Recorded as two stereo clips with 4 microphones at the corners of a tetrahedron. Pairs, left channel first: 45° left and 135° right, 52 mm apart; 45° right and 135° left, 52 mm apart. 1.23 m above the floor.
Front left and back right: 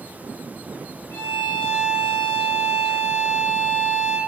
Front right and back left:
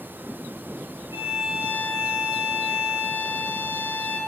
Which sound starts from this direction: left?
A violin, at 1.1 s.